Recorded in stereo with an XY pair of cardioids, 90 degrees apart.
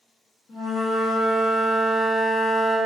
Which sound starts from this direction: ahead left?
A flute, at 0.5 s.